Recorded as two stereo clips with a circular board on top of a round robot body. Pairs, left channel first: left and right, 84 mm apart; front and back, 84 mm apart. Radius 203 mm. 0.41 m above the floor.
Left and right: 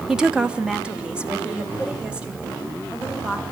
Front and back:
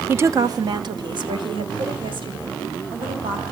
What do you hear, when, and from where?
0.1 s a woman speaking: 165° right, 1.1 m